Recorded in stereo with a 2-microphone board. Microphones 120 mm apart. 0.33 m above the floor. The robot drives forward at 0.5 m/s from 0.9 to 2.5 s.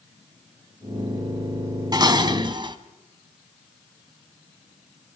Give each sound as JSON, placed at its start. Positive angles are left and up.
{"t": 1.9, "sound": "dishes clattering", "side_deg": -35, "distance_m": 1.7}